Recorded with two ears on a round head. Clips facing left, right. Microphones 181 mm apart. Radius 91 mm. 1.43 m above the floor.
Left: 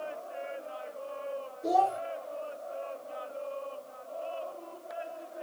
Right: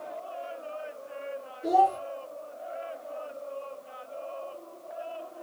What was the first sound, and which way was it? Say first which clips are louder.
A child speaking: right 3 dB; 10° right (ahead or behind).